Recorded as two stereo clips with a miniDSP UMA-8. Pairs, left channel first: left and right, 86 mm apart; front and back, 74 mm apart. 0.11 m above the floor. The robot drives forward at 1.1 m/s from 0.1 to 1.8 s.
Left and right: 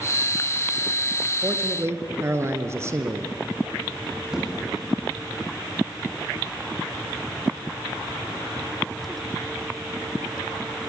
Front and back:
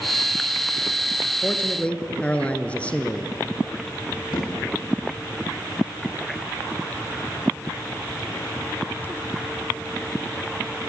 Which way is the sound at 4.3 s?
10° right.